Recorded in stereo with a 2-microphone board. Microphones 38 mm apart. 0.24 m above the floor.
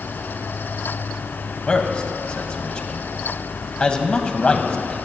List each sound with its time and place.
1.7 s a man speaking: 30° left (ahead or behind), 1.2 m